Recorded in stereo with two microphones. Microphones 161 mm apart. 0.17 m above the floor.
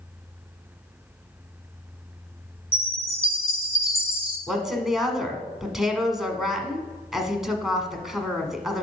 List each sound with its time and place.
2.7 s a chime: 40° left (ahead or behind), 2.5 m
4.5 s a woman speaking: centre (ahead or behind), 1.3 m